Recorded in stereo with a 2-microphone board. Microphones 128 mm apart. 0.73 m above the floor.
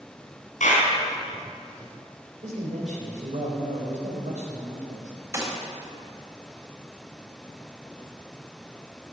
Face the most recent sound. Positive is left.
turn(degrees=-30)  # may be behind; listen again after turning